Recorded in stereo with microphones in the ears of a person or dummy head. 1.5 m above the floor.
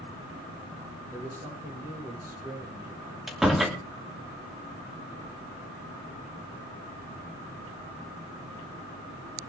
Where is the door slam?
Centre (ahead or behind), 2.5 m.